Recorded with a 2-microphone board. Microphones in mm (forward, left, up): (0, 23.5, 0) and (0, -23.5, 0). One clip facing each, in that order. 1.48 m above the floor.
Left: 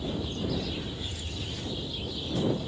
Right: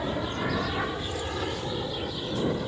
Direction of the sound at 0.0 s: 70° right (ahead or behind).